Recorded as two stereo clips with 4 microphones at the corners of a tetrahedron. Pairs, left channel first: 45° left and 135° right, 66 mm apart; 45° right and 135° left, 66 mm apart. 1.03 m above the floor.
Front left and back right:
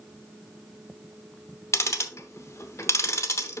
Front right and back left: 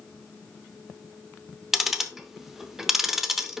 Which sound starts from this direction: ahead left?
Ticking, at 1.7 s.